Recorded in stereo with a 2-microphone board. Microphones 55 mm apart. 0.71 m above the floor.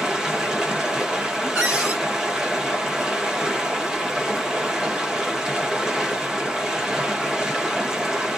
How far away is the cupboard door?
About 1.7 m.